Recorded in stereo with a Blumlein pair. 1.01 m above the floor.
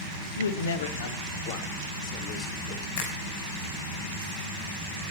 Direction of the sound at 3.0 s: 45° left.